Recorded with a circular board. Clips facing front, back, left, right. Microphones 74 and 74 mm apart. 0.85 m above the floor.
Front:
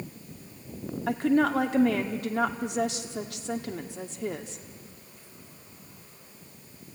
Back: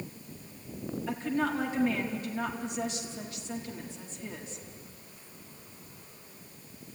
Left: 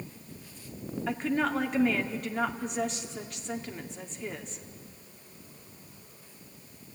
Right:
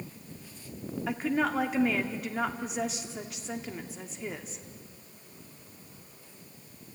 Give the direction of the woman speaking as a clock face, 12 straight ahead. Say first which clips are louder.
Front 7 dB, even; 12 o'clock.